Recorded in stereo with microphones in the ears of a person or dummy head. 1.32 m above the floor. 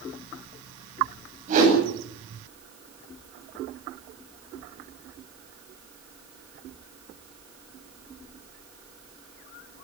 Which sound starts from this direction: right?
A whoosh, at 1.5 s.